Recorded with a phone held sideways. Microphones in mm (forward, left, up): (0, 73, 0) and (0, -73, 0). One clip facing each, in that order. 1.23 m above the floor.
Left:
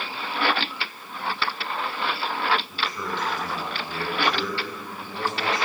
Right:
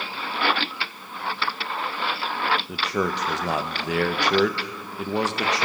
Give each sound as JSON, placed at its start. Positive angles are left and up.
{"t": 2.7, "sound": "a man speaking", "side_deg": -70, "distance_m": 0.9}